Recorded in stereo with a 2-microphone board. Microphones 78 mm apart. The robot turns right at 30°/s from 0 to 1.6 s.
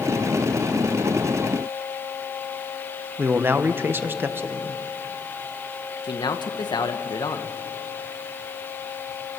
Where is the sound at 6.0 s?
65° left (ahead or behind), 1.4 m.